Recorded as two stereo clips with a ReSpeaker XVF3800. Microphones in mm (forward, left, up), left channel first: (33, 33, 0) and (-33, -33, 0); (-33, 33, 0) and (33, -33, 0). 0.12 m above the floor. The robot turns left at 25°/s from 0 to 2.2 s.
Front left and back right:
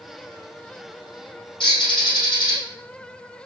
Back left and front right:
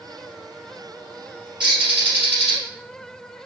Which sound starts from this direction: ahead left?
A bird, at 1.6 s.